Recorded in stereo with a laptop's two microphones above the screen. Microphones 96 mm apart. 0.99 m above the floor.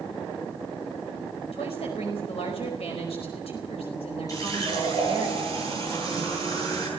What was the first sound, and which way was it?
A woman speaking, 80° left.